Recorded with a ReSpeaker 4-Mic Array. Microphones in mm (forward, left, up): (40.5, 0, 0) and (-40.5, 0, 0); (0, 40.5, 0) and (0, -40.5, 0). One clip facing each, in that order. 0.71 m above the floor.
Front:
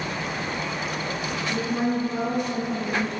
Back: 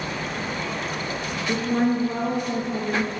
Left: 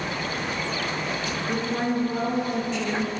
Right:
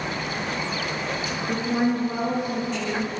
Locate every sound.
1.5 s a woman speaking: 150° right, 1.3 m